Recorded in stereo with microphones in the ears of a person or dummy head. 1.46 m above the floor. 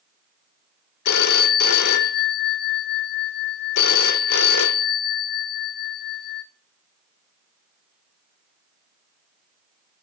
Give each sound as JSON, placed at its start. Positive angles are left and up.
{"t": 1.1, "sound": "a phone ringing", "side_deg": 55, "distance_m": 0.9}